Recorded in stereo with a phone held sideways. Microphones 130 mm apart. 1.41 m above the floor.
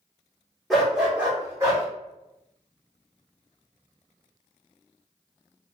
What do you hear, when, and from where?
0.7 s a dog barking: centre (ahead or behind), 1.1 m; by 1.9 s 25° right (ahead or behind), 1.4 m